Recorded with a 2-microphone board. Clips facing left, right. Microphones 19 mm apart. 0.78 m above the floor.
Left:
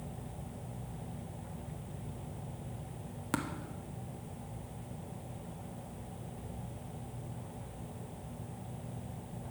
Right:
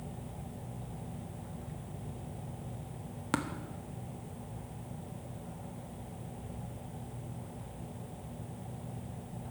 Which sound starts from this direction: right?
Tapping, at 3.3 s.